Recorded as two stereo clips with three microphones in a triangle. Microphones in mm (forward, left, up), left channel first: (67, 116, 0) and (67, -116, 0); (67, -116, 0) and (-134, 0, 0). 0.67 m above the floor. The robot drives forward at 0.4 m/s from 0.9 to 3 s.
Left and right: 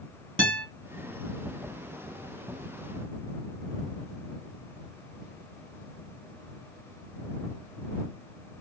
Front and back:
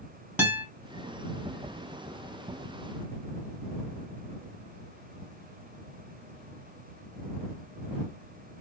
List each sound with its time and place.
0.4 s a guitar: 125° right, 1.8 m